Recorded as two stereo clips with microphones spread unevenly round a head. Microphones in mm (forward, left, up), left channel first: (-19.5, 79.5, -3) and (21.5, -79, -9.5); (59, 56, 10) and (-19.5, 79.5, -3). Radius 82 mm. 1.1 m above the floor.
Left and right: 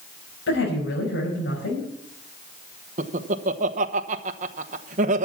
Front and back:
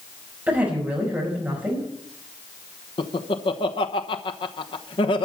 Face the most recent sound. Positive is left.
turn(degrees=-40)